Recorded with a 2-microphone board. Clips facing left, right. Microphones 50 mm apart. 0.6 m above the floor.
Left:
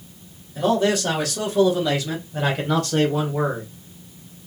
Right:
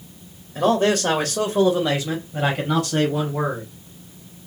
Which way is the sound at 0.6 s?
50° right (ahead or behind).